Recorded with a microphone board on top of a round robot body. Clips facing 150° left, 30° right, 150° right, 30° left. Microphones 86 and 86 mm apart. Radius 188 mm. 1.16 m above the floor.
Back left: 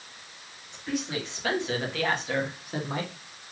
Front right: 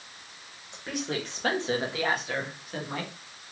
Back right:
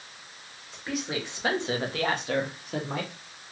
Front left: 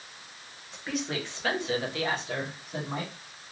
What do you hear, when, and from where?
0.7 s a woman speaking: 60° right, 1.3 m; by 3.1 s 150° right, 1.1 m